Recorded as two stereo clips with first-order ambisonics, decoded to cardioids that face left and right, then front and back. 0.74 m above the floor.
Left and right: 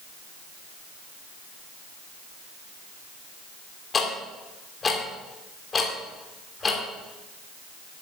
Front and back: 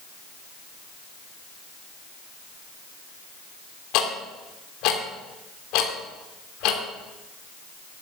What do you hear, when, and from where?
3.9 s ticking: 20° left, 2.5 m